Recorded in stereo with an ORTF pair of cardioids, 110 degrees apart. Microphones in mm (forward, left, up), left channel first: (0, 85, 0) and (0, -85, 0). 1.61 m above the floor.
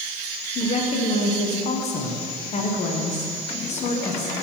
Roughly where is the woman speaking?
Ahead left.